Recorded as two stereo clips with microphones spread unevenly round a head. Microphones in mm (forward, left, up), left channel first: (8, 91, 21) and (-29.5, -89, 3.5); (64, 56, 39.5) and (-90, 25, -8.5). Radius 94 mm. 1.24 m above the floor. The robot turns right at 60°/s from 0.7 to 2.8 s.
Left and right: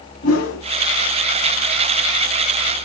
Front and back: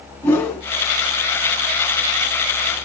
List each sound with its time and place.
0.2 s a whoosh: 85° left, 4.5 m